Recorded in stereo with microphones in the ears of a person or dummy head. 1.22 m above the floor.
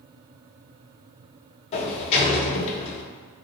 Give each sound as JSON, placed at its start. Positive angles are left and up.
{"t": 1.7, "sound": "a sliding door", "side_deg": 40, "distance_m": 0.6}